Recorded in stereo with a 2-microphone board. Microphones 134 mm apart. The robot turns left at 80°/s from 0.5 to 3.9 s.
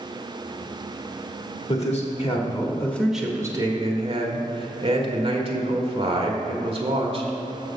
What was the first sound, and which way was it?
A man speaking, 110° left.